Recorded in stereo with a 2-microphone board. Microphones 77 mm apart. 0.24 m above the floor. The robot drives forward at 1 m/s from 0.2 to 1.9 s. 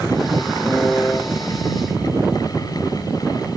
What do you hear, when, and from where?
0.7 s a piano: 15° left (ahead or behind), 1.1 m; by 1.2 s 20° left (ahead or behind), 0.8 m